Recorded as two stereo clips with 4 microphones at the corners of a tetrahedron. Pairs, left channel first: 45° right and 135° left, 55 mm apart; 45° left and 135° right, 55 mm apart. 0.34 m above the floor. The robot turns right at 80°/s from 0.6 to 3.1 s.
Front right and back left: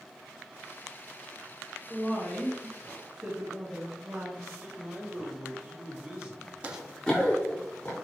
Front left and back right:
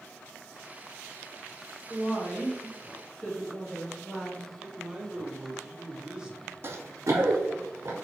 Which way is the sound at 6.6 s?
165° right.